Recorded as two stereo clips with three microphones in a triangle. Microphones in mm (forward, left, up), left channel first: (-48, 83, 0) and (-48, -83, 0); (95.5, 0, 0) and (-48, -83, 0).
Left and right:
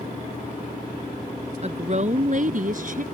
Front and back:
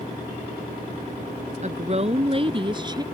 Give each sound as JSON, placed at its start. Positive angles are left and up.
{"t": 1.6, "sound": "a woman speaking", "azimuth_deg": -125}